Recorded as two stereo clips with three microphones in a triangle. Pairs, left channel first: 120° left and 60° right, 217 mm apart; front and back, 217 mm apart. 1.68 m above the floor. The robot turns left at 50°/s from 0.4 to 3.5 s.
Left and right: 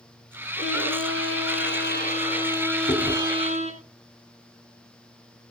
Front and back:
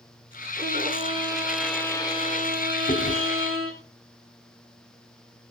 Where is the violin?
145° left, 4.5 m; by 3.8 s straight ahead, 4.5 m.